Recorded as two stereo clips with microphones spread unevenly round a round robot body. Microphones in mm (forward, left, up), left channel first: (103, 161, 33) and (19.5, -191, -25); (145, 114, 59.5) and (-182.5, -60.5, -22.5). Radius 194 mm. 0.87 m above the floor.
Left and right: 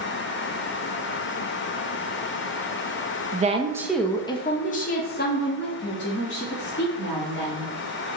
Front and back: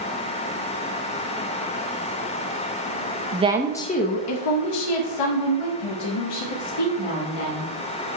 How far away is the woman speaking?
About 0.7 m.